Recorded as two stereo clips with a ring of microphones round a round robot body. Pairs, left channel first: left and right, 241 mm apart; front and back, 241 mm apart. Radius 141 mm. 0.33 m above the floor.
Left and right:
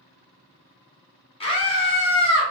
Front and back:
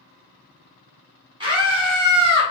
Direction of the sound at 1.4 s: 130° left.